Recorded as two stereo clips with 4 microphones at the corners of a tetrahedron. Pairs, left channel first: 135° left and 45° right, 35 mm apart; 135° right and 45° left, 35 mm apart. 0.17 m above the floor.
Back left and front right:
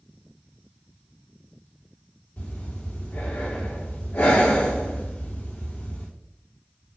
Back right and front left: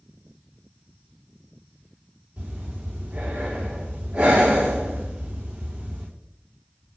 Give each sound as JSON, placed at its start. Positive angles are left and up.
{"t": 2.4, "sound": "breathing", "azimuth_deg": 115, "distance_m": 3.0}